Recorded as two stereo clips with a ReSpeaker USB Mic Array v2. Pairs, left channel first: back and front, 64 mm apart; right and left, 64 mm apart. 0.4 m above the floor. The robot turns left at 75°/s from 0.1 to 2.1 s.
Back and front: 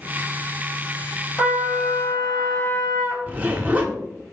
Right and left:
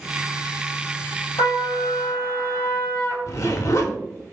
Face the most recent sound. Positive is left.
turn(degrees=-65)